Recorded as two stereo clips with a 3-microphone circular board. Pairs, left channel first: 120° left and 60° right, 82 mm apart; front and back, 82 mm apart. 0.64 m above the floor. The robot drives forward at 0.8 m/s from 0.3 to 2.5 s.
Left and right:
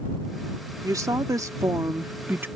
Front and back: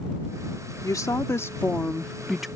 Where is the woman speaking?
30° right; by 2.5 s 95° right.